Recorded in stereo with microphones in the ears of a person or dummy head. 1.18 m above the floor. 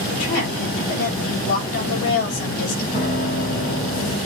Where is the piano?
35° left (ahead or behind), 3 m.